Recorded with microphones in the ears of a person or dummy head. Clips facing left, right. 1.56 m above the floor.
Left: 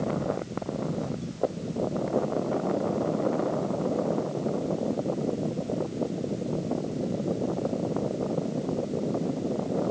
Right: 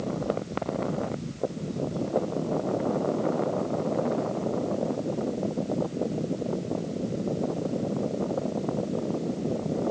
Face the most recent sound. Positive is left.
No sound to turn to.